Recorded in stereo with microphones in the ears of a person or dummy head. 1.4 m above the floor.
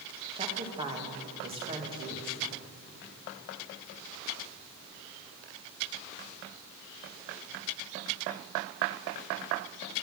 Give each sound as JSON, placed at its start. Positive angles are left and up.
{"t": 0.3, "sound": "a woman speaking", "side_deg": -30, "distance_m": 2.0}